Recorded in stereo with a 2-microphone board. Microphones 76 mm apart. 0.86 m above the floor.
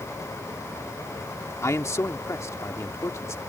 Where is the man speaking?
40° left (ahead or behind).